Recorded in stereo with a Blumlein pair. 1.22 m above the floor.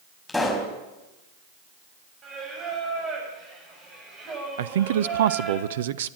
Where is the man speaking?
60° right, 0.8 m.